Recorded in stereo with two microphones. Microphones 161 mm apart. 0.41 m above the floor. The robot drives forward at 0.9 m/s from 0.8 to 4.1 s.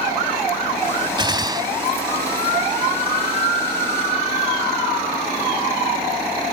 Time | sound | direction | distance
1.2 | a gunshot | 30° right (ahead or behind) | ?